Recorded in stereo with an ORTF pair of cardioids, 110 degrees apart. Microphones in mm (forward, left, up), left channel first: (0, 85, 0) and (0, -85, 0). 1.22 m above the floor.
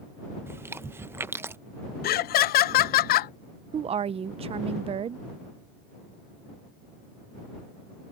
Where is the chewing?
15° right.